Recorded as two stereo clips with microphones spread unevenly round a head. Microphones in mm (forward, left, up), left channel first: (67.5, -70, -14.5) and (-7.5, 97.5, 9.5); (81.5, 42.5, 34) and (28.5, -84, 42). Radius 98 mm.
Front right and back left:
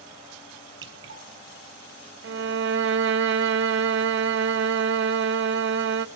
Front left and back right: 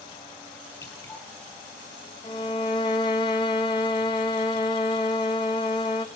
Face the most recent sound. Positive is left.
turn(degrees=135)